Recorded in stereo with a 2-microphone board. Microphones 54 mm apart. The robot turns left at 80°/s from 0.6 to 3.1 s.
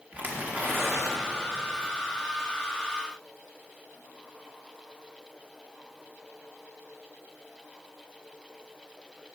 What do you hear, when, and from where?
0.1 s tearing paper: 30° right, 1.3 m; by 1.6 s 115° right, 1.3 m